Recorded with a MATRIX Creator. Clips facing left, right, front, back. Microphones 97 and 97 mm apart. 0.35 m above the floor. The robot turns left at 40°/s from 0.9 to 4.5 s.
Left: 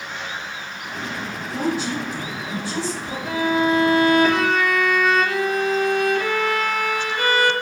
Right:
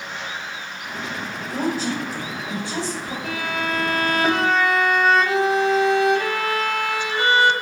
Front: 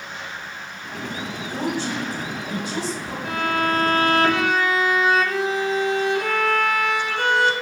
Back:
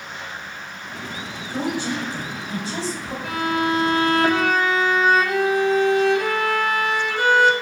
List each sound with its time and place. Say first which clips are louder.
1.5 s a woman speaking: even, back 1 dB; 100° right, 1.5 m; by 3.1 s 165° right, 1.5 m
3.2 s a violin: left 8 dB, back 1 dB; 95° right, 0.8 m; by 7.5 s 145° right, 0.8 m